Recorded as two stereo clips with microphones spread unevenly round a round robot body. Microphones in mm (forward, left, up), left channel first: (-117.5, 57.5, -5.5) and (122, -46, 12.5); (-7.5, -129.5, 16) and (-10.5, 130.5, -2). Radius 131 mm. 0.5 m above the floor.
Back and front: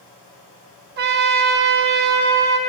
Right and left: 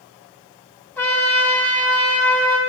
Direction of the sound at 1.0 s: 5° right.